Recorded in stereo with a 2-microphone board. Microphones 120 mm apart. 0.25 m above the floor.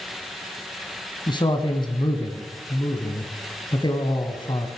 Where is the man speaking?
40° left (ahead or behind), 1.9 m.